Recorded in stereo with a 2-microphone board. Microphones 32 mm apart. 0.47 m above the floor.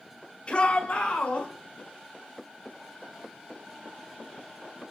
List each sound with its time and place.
0.5 s a shout: 40° left (ahead or behind), 1.7 m; by 1.5 s 60° left (ahead or behind), 1.7 m